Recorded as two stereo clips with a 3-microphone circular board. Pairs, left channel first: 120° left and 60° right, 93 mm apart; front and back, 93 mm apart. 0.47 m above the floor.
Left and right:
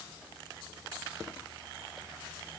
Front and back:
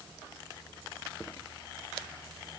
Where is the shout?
I don't hear a shout.